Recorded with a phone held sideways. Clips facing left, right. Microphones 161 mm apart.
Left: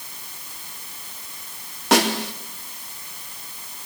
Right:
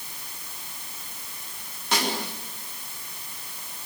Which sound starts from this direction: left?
A snare drum, at 1.9 s.